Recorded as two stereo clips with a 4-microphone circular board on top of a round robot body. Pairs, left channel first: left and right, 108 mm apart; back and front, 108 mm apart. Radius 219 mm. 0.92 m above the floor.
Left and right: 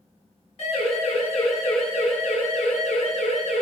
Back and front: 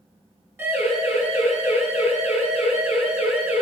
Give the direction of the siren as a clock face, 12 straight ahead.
10 o'clock.